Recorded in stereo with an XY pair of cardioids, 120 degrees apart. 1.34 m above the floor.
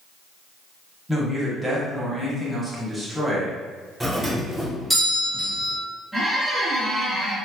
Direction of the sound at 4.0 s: 10° right.